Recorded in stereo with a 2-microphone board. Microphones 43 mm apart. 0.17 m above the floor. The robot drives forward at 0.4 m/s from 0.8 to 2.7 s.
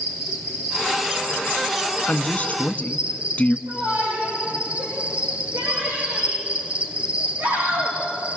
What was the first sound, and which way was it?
An insect, 20° right (ahead or behind).